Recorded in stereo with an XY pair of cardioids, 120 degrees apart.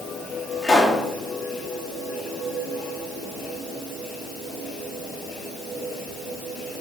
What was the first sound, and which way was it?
A pop, 30° left.